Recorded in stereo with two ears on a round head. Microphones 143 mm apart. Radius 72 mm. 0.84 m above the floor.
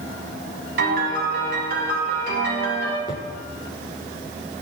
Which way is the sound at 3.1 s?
30° right (ahead or behind).